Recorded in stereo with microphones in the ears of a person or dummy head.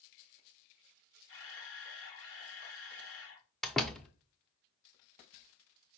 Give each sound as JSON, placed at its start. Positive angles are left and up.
{"t": 1.3, "sound": "a camera shutter", "side_deg": 65, "distance_m": 1.5}
{"t": 3.6, "sound": "a door slam", "side_deg": 0, "distance_m": 0.7}